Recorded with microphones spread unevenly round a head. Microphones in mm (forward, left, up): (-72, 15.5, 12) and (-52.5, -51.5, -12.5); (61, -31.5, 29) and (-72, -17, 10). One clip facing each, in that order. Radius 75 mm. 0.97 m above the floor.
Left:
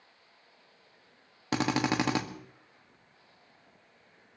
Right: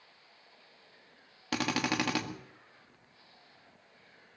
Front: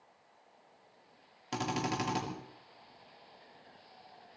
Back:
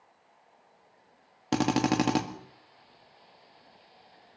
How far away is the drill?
About 1.7 m.